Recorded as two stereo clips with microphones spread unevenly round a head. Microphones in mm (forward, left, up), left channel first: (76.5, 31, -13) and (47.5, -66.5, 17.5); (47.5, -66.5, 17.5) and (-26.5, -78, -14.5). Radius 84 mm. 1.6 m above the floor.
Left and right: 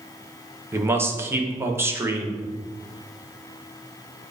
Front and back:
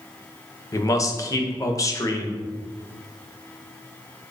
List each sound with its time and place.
0.7 s a man speaking: 40° right, 1.2 m